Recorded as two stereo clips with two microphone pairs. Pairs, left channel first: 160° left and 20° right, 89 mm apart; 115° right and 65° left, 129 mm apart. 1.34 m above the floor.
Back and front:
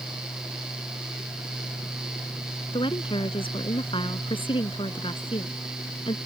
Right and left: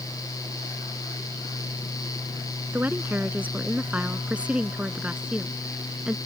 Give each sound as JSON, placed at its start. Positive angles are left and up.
{"t": 2.7, "sound": "a woman speaking", "azimuth_deg": 140}